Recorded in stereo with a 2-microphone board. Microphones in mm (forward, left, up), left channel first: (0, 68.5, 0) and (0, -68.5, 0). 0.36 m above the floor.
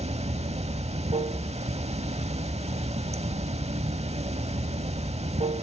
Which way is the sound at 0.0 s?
50° right (ahead or behind).